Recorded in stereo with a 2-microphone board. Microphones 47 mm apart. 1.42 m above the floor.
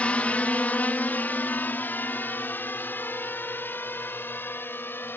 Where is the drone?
30° left (ahead or behind); by 5.2 s 50° left (ahead or behind).